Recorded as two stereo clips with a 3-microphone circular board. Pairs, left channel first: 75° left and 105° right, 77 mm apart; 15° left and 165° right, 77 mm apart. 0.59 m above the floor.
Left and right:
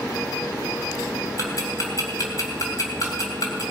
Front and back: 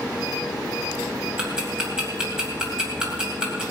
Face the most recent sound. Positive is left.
turn(degrees=115)